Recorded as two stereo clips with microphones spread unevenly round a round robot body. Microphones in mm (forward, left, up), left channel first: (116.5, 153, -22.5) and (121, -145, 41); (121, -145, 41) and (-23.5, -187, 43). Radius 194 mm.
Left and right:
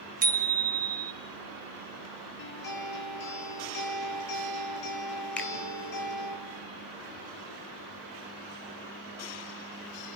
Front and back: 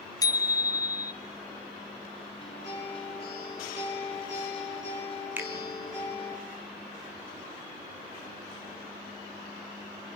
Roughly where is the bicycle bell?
Ahead right.